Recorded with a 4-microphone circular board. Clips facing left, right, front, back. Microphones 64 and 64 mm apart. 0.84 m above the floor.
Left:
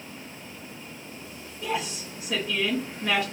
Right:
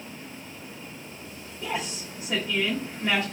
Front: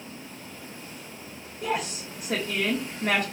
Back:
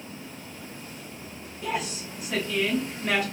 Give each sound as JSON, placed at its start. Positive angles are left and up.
{"t": 1.6, "sound": "a woman speaking", "azimuth_deg": -10, "distance_m": 1.4}